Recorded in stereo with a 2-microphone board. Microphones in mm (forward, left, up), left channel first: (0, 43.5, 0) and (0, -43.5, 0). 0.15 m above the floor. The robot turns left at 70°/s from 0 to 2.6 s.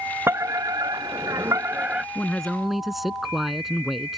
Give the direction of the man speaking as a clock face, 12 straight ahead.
11 o'clock.